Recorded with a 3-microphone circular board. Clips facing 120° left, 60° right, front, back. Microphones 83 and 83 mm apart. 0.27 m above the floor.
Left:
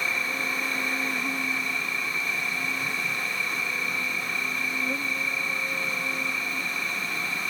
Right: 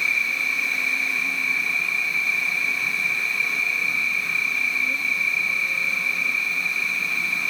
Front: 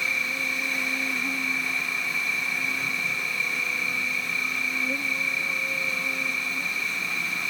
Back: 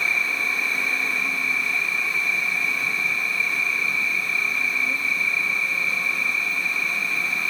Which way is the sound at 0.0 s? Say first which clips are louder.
Right 3 dB, back 4 dB; 60° left.